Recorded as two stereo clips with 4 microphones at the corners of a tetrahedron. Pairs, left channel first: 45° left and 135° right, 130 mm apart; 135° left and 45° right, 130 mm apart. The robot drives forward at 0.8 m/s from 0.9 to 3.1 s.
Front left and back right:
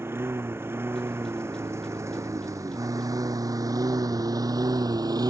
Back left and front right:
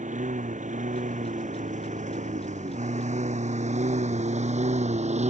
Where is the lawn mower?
65° right; by 5.3 s 75° right.